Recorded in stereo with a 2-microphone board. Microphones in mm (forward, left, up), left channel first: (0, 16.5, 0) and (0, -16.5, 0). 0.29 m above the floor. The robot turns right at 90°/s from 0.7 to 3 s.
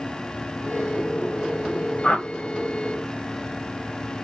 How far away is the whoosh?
About 1.1 m.